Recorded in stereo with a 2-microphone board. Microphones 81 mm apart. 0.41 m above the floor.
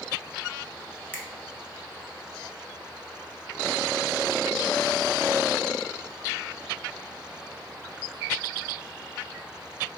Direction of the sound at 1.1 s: 20° left (ahead or behind).